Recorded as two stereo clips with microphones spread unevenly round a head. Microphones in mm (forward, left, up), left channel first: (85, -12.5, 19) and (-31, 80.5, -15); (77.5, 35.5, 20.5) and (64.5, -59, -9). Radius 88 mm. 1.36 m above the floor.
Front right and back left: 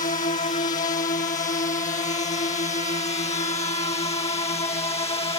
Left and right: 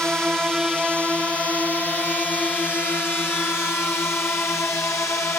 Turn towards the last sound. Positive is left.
turn(degrees=15)